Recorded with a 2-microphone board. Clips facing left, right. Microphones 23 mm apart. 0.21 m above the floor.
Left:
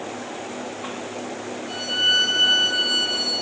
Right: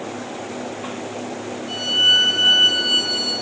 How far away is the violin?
About 2.0 m.